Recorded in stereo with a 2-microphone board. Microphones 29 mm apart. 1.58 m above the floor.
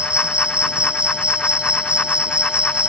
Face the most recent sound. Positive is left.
turn(degrees=-35)  # may be behind; listen again after turning